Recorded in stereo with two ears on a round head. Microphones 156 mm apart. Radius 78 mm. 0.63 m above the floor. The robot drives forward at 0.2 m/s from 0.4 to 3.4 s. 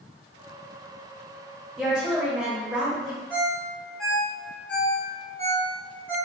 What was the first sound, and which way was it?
A woman speaking, 5° right (ahead or behind).